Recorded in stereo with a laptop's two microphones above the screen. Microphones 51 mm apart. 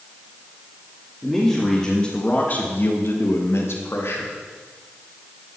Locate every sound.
1.2 s a man speaking: centre (ahead or behind), 2.5 m; by 4.3 s 55° left (ahead or behind), 2.5 m